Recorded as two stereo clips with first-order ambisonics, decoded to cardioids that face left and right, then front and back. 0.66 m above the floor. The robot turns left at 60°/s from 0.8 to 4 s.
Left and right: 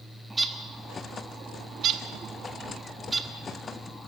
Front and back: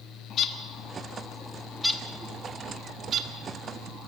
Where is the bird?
15° right, 1.2 m; by 4.1 s 150° left, 1.2 m.